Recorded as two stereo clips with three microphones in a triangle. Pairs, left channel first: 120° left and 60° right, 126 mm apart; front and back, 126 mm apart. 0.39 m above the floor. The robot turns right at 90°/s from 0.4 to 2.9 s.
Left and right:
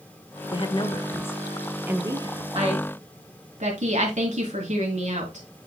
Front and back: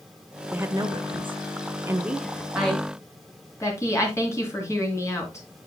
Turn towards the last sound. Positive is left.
turn(degrees=-65)